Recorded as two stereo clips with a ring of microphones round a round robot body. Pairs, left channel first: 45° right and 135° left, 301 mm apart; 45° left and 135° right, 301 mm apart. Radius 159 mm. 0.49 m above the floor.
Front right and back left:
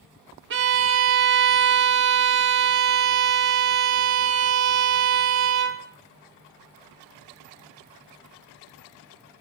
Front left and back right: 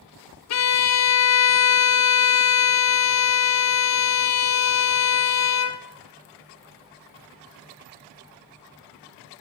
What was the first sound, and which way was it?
A violin, 80° left.